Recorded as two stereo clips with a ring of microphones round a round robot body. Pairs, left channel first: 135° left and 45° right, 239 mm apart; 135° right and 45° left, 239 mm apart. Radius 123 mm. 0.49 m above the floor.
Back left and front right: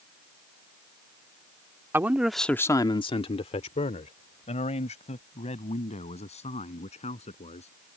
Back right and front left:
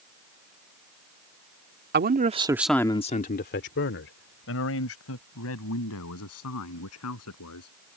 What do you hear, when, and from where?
1.9 s a man speaking: 30° left; by 7.8 s 160° right